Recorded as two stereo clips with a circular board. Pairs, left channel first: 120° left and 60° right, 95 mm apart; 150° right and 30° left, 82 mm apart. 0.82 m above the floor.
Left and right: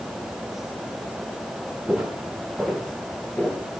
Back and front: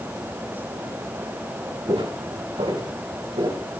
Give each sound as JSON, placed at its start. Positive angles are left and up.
{"t": 1.9, "sound": "footsteps", "azimuth_deg": 20, "distance_m": 5.0}